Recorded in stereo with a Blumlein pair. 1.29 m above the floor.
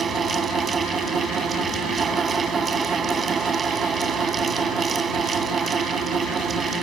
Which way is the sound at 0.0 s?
20° right.